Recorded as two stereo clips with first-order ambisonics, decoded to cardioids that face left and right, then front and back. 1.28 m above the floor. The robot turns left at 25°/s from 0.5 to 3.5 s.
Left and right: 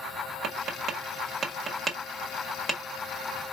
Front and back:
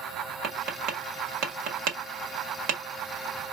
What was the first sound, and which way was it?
Tapping, 135° right.